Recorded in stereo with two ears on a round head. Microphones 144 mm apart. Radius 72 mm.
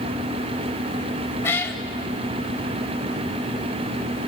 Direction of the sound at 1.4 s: 15° left (ahead or behind).